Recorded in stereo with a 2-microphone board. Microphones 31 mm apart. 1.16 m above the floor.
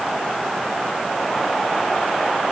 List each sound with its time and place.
Only background noise.